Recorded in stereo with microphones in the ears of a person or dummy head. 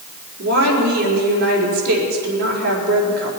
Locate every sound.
0.4 s a woman speaking: 50° right (ahead or behind), 4.5 m